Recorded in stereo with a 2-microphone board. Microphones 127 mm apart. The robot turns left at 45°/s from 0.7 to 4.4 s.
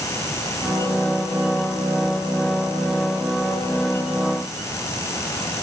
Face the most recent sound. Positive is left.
No sound to turn to.